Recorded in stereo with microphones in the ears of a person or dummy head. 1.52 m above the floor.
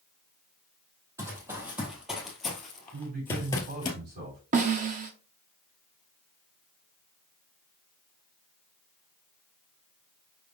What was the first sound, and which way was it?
Running footsteps, 15° right (ahead or behind).